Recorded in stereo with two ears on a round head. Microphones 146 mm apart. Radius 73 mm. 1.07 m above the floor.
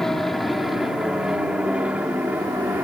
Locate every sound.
0.0 s an aircraft: centre (ahead or behind); by 2.8 s 10° right (ahead or behind)